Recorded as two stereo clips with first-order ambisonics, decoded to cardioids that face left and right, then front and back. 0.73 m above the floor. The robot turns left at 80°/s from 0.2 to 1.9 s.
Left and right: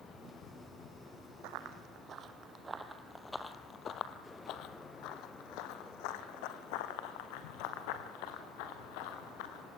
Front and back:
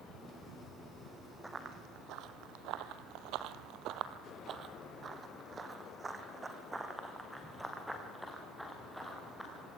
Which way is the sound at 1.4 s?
100° right.